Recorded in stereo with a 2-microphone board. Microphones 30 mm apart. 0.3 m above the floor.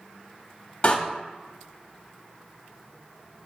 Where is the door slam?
40° left (ahead or behind), 1.1 m.